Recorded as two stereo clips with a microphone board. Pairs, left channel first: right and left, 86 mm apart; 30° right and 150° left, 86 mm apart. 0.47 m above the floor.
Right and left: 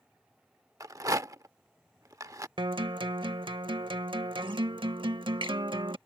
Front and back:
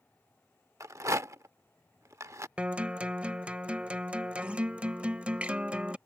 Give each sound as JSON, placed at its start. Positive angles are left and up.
{"t": 0.8, "sound": "a rattle", "azimuth_deg": 115}
{"t": 2.6, "sound": "a guitar", "azimuth_deg": 75}